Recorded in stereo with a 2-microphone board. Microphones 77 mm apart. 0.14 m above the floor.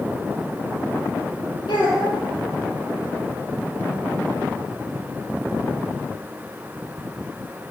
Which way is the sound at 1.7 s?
75° left (ahead or behind).